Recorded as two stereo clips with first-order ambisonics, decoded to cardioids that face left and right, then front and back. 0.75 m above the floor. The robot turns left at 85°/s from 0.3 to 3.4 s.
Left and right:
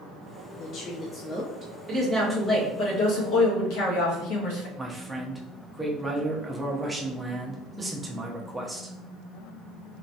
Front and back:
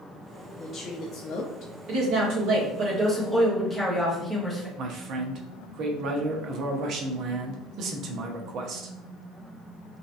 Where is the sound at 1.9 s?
140° right, 1.6 m; by 4.7 s 90° left, 1.6 m.